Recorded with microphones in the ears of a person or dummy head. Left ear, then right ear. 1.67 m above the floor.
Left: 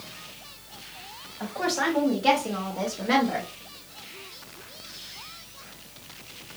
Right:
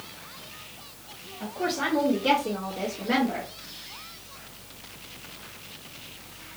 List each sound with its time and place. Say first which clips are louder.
1.4 s a woman speaking: left 2 dB; 45° left (ahead or behind), 1.7 m; by 3.5 s 80° left, 1.5 m